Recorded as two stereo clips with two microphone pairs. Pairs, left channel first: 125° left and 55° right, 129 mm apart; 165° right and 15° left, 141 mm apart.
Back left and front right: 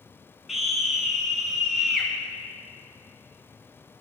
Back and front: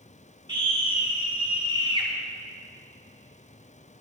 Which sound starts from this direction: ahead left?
A scream, at 0.5 s.